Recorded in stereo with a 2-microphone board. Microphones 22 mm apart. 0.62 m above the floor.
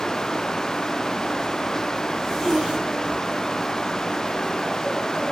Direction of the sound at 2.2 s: 5° right (ahead or behind).